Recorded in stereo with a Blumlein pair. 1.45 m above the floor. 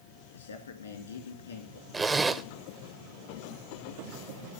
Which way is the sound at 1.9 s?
10° right.